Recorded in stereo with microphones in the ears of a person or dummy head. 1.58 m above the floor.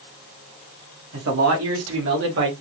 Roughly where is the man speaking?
Right.